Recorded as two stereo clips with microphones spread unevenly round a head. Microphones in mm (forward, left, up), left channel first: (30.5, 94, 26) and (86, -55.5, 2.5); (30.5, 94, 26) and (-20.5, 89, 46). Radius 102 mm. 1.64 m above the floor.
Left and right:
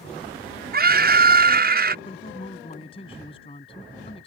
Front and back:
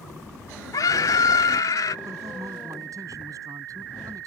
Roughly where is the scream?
Ahead right.